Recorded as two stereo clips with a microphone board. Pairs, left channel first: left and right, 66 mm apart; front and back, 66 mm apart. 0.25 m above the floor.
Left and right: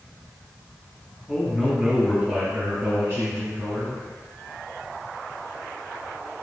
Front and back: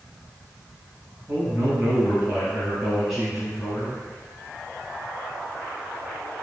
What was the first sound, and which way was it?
A man speaking, 170° right.